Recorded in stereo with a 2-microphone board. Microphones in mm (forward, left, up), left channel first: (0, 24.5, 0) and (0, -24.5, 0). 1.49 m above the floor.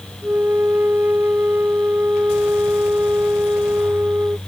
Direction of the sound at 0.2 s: 40° right (ahead or behind).